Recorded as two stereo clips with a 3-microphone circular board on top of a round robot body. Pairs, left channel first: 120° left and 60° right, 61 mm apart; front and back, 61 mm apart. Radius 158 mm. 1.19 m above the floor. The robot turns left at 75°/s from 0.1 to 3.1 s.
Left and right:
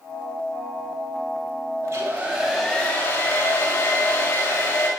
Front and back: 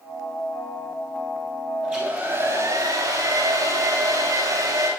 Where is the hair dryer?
105° right, 8 m; by 4.9 s 160° left, 8 m.